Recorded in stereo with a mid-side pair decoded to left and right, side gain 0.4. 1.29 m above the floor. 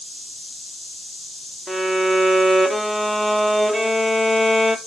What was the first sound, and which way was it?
A violin, 5° left.